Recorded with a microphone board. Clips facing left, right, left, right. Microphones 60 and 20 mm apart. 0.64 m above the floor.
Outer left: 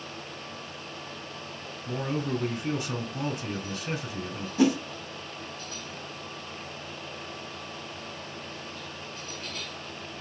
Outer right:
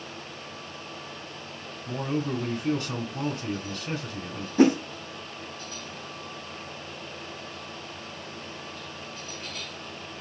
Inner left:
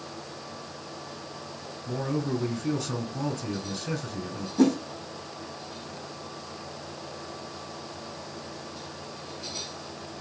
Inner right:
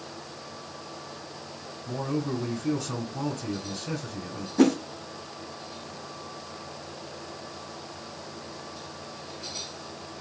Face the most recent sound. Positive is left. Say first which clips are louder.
# outer right 4 dB, inner right 1 dB
turn(degrees=-40)  # may be behind; listen again after turning